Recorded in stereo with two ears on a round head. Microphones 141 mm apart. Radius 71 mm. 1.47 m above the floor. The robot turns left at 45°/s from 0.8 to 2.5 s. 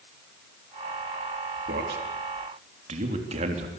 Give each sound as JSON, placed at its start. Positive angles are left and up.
{"t": 1.7, "sound": "a man speaking", "side_deg": -80, "distance_m": 3.5}